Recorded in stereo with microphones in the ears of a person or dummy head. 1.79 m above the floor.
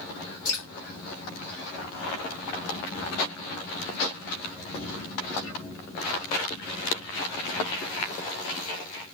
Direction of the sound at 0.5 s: 20° left (ahead or behind).